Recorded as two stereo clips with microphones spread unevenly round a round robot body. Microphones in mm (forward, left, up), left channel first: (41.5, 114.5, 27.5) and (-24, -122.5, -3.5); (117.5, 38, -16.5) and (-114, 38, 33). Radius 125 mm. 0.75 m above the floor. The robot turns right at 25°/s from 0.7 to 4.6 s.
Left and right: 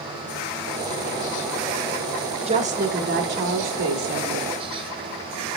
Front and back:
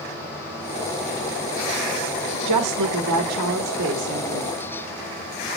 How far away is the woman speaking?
About 1.4 m.